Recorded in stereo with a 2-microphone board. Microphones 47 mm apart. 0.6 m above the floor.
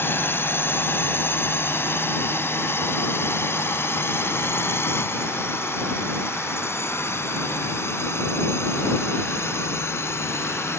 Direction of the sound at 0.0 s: 45° left (ahead or behind).